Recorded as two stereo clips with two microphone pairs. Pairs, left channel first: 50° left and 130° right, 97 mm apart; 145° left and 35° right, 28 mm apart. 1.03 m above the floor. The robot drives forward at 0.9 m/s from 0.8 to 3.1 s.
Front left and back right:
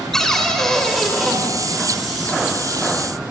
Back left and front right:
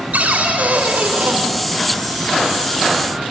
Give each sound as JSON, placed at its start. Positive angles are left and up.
{"t": 0.1, "sound": "a cupboard door", "azimuth_deg": -35, "distance_m": 2.5}